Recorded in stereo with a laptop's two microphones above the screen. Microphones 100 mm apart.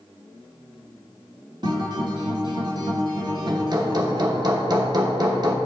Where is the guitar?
50° right (ahead or behind), 1.2 m.